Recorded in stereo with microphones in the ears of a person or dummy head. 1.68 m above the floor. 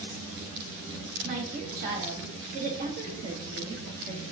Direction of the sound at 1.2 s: 45° right (ahead or behind).